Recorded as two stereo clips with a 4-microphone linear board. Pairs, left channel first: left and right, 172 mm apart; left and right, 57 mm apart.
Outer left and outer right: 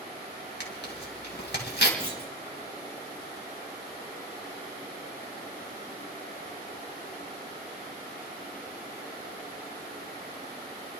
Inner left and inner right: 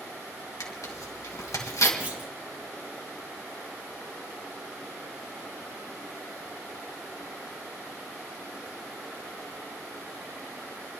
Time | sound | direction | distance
0.6 | tearing paper | 80° left | 2.5 m
2.0 | a clunk | 30° right (ahead or behind) | 1.6 m